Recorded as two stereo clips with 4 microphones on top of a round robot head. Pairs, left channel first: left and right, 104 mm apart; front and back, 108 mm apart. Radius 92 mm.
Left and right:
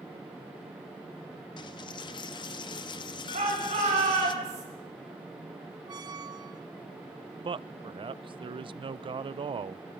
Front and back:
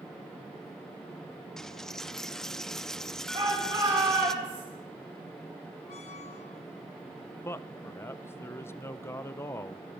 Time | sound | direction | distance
1.6 | a dropped coin | 85° left | 0.5 m
3.3 | a shout | 115° right | 7 m
5.9 | a squeak | 35° right | 0.9 m
7.4 | a man speaking | 60° right | 0.6 m